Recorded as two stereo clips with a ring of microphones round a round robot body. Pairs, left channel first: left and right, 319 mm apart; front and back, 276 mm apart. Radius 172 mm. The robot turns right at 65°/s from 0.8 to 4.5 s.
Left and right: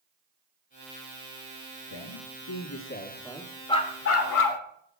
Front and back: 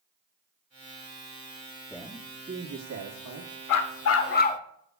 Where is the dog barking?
10° left, 0.9 m; by 4.6 s 65° left, 0.9 m.